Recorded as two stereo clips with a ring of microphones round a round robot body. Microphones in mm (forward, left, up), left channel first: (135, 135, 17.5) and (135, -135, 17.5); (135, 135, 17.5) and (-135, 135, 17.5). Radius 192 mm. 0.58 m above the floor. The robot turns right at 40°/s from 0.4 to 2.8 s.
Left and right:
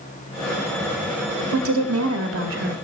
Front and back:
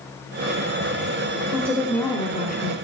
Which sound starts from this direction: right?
A woman speaking, at 1.5 s.